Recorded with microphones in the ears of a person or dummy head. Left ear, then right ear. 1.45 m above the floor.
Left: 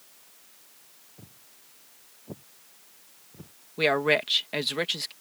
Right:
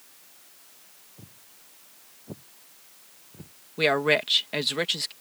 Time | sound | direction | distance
1.2 | footsteps | 10° left (ahead or behind) | ?
3.8 | a woman speaking | 5° left (ahead or behind) | ?